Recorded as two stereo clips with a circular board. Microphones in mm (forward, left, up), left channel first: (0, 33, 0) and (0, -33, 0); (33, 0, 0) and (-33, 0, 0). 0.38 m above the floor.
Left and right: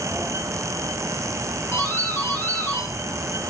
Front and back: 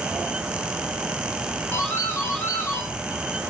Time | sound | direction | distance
1.7 | a doorbell | 45° left | 3.5 m